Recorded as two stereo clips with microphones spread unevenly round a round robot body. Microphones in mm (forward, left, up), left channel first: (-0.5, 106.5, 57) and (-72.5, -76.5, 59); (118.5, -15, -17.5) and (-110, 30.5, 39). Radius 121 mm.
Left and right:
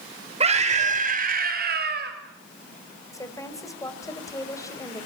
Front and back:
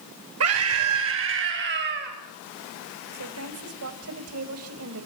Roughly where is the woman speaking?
Behind left.